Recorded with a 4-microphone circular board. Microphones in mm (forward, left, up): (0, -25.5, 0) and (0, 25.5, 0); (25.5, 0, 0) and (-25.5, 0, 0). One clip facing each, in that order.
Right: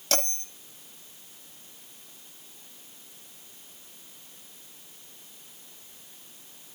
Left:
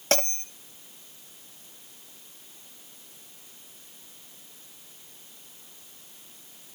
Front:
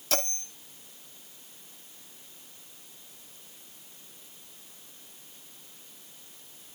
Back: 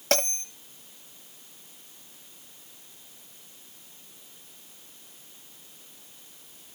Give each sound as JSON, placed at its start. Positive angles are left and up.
{"t": 0.1, "sound": "a bell", "azimuth_deg": 140, "distance_m": 8.5}